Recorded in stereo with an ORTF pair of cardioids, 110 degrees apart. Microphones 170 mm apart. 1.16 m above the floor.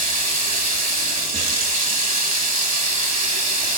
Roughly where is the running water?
Ahead right.